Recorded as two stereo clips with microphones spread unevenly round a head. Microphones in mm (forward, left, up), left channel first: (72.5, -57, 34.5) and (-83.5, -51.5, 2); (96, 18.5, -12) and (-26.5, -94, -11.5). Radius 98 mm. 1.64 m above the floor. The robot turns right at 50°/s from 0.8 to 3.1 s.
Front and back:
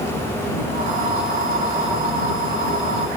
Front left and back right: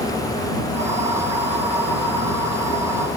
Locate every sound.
Only background noise.